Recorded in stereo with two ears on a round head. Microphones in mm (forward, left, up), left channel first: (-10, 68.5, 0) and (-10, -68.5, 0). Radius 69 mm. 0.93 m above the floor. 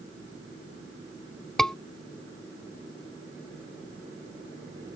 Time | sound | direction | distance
1.6 | a scream | 5° left (ahead or behind) | ?